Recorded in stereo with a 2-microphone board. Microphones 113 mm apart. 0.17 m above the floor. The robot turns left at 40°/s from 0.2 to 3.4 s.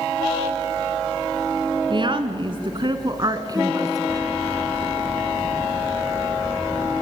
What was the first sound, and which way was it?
A woman speaking, 70° right.